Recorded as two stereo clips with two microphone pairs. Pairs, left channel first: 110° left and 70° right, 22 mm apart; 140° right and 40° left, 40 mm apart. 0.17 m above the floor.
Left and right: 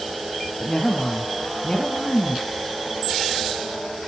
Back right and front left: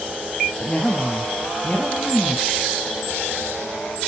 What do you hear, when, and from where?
0.6 s a woman speaking: 160° left, 5 m